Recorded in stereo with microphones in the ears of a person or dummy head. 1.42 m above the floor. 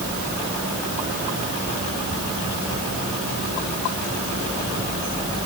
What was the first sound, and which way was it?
Only background noise.